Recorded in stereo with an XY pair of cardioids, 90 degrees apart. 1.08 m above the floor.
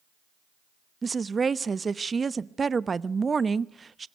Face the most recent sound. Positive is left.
turn(degrees=-35)